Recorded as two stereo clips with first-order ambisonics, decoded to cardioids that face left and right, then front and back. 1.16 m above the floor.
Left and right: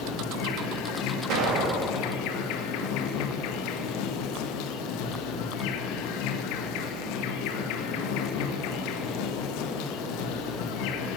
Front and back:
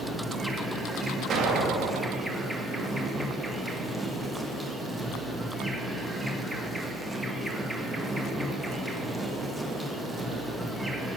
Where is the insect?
95° left, 1.4 m.